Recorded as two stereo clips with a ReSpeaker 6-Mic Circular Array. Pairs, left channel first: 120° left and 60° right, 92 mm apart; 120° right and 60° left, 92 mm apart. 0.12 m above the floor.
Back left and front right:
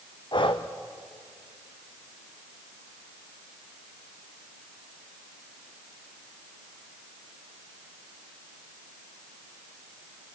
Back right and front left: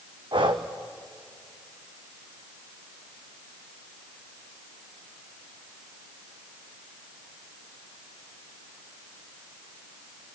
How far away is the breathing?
About 1.5 m.